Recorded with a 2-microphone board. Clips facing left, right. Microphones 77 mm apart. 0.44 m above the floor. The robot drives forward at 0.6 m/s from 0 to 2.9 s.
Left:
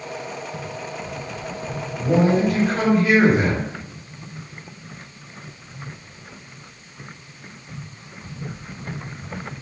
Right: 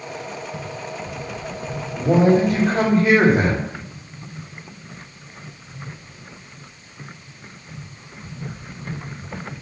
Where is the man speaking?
45° right (ahead or behind), 2.5 m; by 3.7 s 40° right (ahead or behind), 3 m.